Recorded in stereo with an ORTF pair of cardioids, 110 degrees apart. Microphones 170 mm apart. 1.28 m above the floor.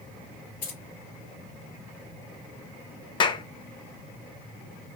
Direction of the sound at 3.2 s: 30° left.